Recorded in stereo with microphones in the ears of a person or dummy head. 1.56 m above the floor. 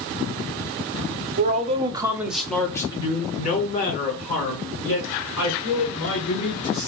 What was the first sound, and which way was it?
A man speaking, 45° right (ahead or behind).